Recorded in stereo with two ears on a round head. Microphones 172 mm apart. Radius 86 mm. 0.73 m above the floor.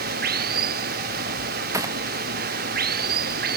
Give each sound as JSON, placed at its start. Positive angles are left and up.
{"t": 0.0, "sound": "running water", "side_deg": -50}
{"t": 1.7, "sound": "a gunshot", "side_deg": -15}